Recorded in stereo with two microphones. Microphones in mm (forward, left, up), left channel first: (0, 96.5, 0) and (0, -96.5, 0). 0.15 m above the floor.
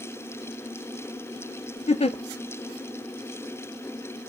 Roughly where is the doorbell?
I don't hear a doorbell.